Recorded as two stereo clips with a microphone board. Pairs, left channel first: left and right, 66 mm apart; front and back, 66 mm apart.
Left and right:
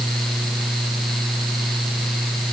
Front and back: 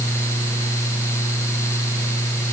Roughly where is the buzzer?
I don't hear a buzzer.